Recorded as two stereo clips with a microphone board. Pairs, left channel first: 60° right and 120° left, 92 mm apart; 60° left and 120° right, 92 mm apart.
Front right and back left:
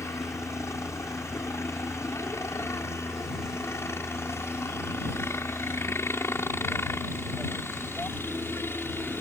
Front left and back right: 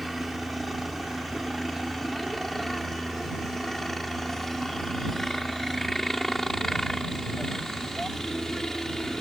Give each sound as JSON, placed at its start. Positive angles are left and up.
{"t": 0.0, "sound": "a helicopter", "azimuth_deg": -30}